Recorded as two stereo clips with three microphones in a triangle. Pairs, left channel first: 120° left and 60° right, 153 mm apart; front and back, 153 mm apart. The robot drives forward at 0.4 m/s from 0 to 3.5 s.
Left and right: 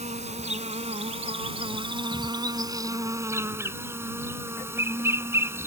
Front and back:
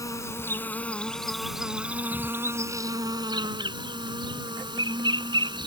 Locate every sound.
0.0 s an insect: 60° right; by 5.7 s 130° right